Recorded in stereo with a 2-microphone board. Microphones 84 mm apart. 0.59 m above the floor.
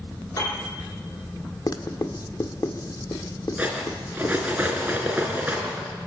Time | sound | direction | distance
0.4 | a piano | 40° left (ahead or behind) | 10 m
1.7 | writing | 50° left (ahead or behind) | 1.5 m
3.6 | cutlery clinking | 20° right (ahead or behind) | 5 m